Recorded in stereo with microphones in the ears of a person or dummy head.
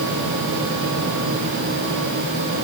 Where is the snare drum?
No snare drum in this recording.